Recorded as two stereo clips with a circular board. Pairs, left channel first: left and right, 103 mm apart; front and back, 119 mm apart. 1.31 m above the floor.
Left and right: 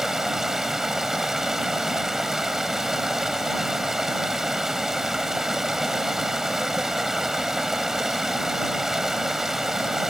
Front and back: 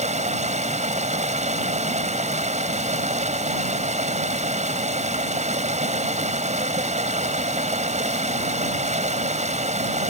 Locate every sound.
0.0 s running water: 175° right